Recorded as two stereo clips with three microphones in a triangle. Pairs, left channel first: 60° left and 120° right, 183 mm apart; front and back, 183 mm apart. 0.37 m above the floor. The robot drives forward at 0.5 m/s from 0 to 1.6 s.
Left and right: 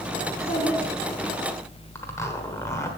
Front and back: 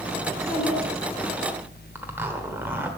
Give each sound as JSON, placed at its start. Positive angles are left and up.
{"t": 0.3, "sound": "a child speaking", "azimuth_deg": 120, "distance_m": 2.5}
{"t": 1.9, "sound": "a zipper", "azimuth_deg": 115, "distance_m": 1.2}